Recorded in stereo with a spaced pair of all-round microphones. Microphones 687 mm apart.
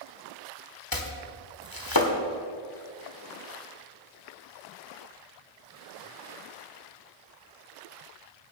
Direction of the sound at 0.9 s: 30° left (ahead or behind).